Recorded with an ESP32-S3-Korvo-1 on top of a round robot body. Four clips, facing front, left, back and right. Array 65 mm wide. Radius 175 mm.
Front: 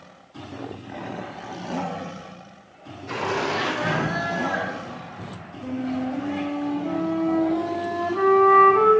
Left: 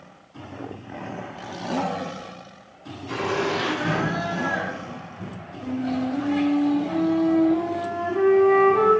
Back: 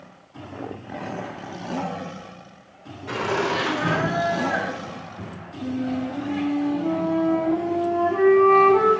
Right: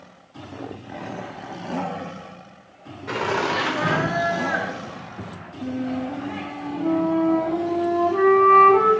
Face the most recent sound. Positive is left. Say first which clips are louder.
# left 1 dB, back 1 dB
turn(degrees=-115)